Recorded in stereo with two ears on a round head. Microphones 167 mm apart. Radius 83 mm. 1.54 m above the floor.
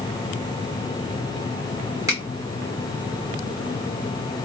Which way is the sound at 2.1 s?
15° right (ahead or behind).